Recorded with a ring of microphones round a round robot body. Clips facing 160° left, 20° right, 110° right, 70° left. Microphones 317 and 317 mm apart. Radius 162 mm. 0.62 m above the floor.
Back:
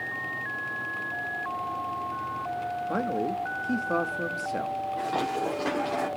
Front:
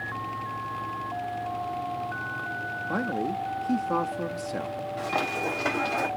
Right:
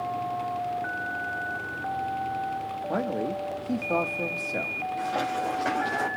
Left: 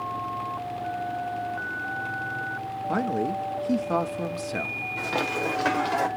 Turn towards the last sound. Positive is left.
turn(degrees=35)